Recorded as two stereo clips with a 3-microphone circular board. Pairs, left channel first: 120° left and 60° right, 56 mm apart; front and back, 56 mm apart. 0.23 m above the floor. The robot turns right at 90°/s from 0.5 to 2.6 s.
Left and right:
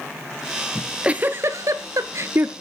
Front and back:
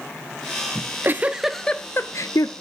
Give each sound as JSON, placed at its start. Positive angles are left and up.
{"t": 0.8, "sound": "a giggle", "azimuth_deg": -155, "distance_m": 0.8}